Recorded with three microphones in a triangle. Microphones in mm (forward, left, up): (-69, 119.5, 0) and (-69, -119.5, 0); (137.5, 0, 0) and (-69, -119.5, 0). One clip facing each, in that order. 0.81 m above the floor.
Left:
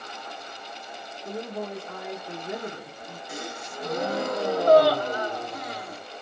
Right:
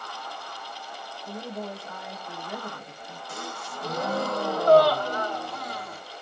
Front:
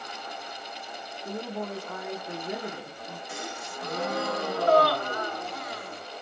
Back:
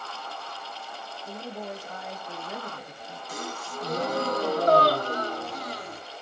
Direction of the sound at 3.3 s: 160° left.